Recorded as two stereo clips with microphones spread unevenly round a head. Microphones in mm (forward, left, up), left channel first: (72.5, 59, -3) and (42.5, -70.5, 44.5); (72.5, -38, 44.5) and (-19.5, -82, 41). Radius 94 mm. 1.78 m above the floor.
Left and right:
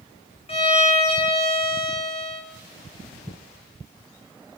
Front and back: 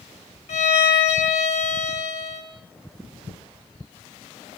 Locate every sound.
0.5 s a violin: 30° left, 5.5 m